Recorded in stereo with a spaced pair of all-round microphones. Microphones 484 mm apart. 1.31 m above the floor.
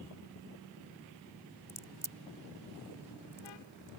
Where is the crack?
70° right (ahead or behind).